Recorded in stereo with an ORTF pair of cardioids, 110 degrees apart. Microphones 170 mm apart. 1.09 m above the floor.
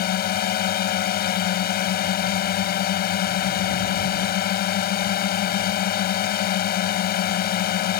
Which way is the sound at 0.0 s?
65° left.